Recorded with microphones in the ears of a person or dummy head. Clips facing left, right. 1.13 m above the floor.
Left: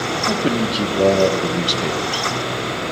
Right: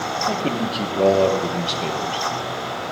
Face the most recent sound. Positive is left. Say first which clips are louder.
# left 4 dB
turn(degrees=15)  # may be behind; listen again after turning